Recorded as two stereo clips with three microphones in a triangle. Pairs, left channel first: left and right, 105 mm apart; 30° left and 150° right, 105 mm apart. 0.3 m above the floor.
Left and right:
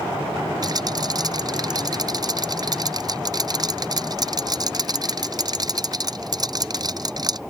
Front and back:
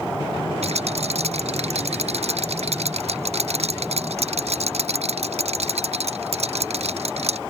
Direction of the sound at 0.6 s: 140° right.